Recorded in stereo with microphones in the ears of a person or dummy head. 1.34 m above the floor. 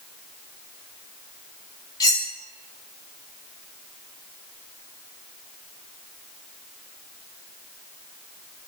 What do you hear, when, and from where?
2.0 s cutlery clinking: 20° left (ahead or behind), 2.5 m